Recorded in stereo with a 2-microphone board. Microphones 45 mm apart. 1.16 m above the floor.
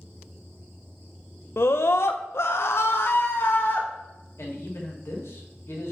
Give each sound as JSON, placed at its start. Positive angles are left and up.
{"t": 1.6, "sound": "a scream", "side_deg": 65, "distance_m": 0.6}
{"t": 4.4, "sound": "a man speaking", "side_deg": 85, "distance_m": 2.0}